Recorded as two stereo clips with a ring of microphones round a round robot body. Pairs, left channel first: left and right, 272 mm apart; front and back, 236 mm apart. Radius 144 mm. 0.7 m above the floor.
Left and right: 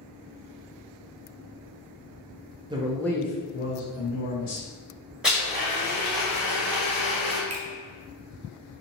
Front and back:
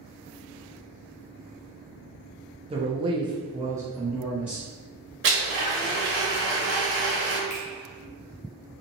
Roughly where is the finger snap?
Ahead right.